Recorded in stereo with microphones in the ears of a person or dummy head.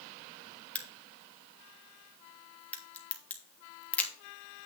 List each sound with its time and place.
0.8 s a crack: 5° left (ahead or behind), 1.5 m